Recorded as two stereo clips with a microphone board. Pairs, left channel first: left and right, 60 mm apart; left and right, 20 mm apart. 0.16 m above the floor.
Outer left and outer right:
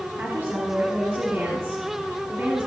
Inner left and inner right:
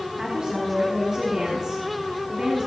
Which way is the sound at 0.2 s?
40° right (ahead or behind).